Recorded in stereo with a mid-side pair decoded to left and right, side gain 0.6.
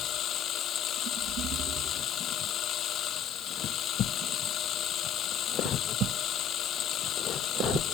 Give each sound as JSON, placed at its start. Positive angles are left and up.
{"t": 0.0, "sound": "a machine running", "azimuth_deg": 50}